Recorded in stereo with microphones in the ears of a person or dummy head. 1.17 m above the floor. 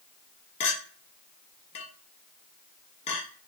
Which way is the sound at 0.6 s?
35° left (ahead or behind).